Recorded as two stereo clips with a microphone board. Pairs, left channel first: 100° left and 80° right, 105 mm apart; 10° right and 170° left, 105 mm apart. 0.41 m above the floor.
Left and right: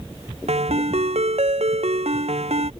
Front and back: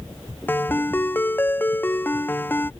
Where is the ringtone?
80° right.